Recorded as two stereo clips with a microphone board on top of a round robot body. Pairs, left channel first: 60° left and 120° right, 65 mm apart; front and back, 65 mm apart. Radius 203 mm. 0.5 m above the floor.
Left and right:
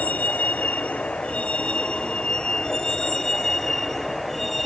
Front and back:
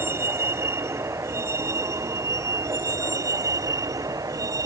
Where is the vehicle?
130° left; by 4.7 s 150° left.